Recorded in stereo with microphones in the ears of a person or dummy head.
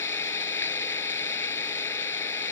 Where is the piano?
I don't hear a piano.